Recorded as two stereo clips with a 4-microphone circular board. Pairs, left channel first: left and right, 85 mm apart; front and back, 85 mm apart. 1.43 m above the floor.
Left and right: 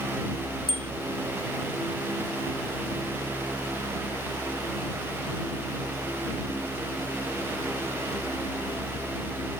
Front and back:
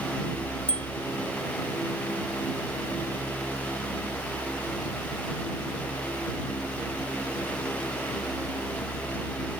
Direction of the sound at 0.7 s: 70° right.